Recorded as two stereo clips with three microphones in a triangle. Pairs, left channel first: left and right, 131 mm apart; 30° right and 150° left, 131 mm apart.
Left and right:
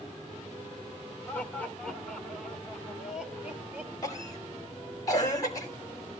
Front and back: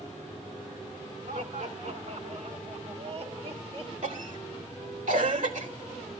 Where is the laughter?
165° left, 3 m; by 3.9 s 165° right, 3.5 m.